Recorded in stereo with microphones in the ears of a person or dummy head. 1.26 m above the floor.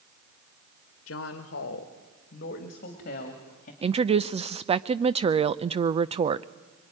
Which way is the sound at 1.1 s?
75° left (ahead or behind).